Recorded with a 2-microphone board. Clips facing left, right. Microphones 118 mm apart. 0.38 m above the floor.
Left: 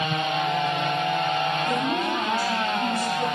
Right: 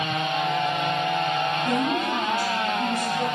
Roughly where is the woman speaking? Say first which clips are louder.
Right 1 dB; right.